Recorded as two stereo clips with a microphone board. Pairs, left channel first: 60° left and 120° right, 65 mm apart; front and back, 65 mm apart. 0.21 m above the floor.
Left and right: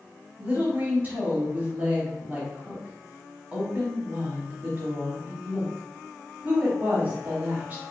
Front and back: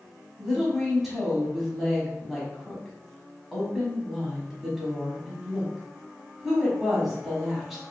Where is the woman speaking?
95° right, 1.1 m.